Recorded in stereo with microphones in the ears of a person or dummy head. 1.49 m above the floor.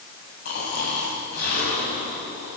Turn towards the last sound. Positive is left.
turn(degrees=60)  # may be behind; listen again after turning